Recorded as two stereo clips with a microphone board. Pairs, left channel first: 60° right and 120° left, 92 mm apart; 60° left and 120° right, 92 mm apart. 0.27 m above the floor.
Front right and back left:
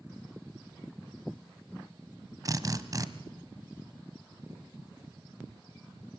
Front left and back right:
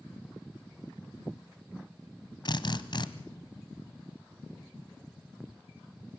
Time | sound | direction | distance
2.5 | a drill | 80° left | 0.9 m